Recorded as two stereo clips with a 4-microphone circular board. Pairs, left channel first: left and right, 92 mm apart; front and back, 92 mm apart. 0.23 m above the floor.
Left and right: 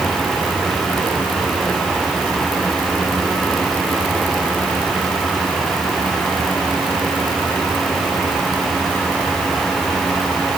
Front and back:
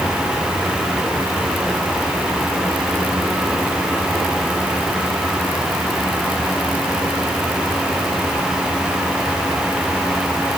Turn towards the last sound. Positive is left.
No sound to turn to.